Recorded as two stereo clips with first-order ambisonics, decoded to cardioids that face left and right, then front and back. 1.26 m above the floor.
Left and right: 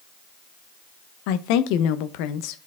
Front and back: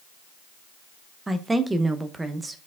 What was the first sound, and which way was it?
A woman speaking, 100° left.